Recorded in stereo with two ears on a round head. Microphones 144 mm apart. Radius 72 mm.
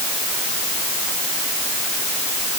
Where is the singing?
No singing in this recording.